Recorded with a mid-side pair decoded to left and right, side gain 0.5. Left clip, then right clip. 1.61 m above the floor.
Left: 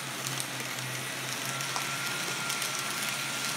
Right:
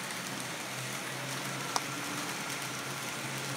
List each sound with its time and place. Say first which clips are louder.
1.8 s a clap: right 2 dB; 30° right, 1.9 m